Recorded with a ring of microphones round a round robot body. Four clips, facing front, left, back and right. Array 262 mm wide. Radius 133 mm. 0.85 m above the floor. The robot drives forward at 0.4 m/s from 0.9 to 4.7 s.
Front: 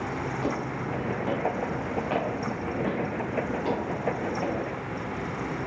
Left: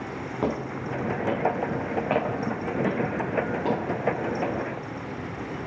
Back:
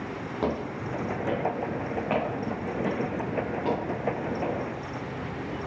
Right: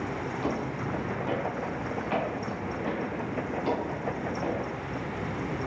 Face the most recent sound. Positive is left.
turn(degrees=105)